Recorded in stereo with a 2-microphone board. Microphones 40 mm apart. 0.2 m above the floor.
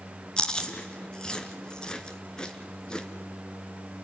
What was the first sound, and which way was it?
Chewing, 20° left (ahead or behind).